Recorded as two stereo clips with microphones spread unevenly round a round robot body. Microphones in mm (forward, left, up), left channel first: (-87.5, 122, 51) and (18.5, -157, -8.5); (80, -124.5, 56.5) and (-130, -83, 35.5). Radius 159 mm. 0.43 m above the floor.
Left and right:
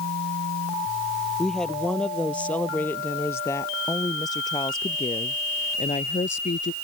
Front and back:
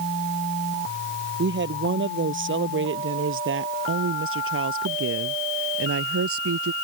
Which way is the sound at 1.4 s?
160° right.